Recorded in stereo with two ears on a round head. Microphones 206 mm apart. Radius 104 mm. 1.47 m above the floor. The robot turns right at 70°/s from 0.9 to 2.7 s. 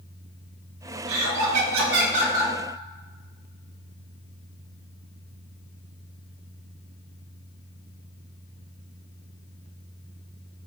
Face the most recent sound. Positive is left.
turn(degrees=5)